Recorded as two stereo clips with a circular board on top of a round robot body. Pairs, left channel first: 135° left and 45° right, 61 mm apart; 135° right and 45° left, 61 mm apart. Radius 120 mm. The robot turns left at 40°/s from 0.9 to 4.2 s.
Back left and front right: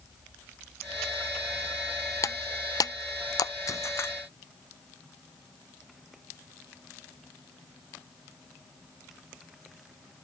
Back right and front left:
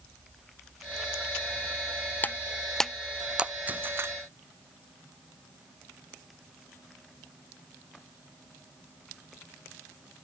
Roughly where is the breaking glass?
Behind.